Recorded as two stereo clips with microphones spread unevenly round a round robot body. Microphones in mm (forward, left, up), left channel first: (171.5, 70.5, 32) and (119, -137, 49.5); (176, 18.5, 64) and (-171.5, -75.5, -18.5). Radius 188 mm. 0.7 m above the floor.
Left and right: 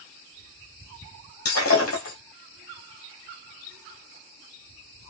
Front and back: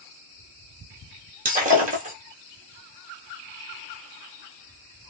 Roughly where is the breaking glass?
Behind left.